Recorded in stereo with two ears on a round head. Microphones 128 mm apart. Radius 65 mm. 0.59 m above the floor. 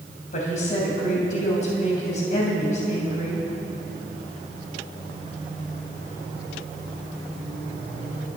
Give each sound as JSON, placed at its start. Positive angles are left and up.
{"t": 0.3, "sound": "a woman speaking", "side_deg": 55, "distance_m": 3.0}